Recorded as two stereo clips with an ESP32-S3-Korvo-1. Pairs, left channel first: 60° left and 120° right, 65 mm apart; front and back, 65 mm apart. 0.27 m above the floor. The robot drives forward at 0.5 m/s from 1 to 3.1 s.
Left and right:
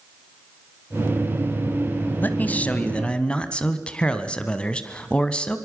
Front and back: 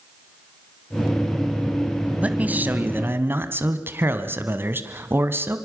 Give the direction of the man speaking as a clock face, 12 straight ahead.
8 o'clock.